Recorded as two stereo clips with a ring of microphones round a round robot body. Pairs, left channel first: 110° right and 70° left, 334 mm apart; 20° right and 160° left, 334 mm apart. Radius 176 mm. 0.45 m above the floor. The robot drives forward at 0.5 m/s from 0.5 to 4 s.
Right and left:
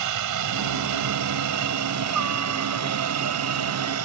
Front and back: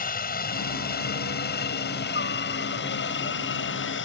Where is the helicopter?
40° left; by 4.0 s 30° left.